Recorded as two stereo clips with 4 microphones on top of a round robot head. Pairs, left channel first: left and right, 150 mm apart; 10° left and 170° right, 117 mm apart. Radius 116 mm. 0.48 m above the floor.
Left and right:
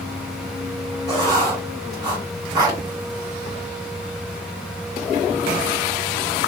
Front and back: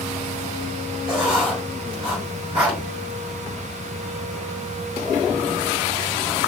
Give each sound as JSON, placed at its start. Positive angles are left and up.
{"t": 1.1, "sound": "writing", "azimuth_deg": -145, "distance_m": 1.7}